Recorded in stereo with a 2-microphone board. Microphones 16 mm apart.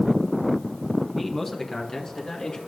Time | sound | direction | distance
1.1 | a man speaking | centre (ahead or behind) | 1.3 m